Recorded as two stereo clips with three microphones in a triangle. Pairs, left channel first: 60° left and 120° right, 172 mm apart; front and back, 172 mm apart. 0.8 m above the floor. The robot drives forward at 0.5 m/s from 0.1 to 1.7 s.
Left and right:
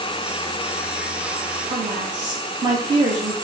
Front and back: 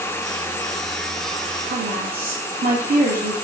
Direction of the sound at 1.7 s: Straight behind.